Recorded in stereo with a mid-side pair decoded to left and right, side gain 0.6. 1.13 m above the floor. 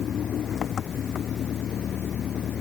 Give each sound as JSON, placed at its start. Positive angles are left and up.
{"t": 0.0, "sound": "an engine running", "azimuth_deg": 40}